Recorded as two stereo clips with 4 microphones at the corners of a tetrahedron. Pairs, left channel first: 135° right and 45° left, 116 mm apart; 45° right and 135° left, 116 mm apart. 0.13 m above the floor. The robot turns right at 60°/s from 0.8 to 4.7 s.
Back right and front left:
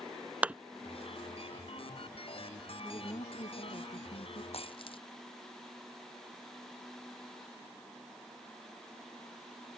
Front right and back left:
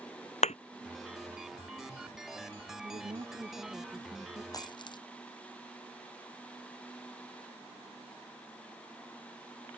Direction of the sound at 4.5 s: 105° right.